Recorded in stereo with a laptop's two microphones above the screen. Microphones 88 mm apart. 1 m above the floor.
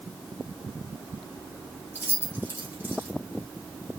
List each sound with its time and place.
1.9 s keys jangling: 20° right (ahead or behind), 1.6 m